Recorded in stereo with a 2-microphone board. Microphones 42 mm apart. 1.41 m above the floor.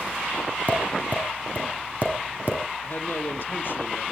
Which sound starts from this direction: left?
A man speaking, at 2.8 s.